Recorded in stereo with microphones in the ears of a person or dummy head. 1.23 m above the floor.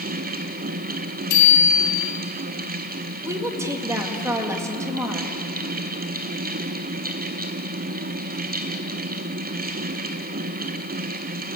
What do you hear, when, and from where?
0.0 s a fan: 40° right (ahead or behind), 0.8 m
1.3 s a bicycle bell: 55° left (ahead or behind), 4.5 m
3.2 s a woman speaking: 15° right (ahead or behind), 2.0 m